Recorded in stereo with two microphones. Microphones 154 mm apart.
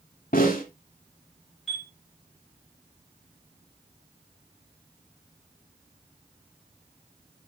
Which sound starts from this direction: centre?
A chime, at 1.7 s.